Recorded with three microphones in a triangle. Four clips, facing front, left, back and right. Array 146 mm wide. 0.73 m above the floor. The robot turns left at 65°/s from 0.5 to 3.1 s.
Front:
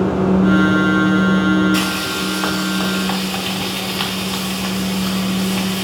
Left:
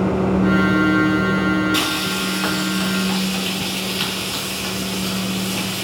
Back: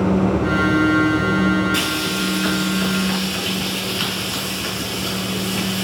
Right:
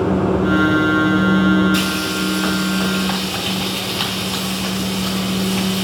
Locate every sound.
1.7 s frying: 50° left, 3 m; by 5.9 s 40° right, 3 m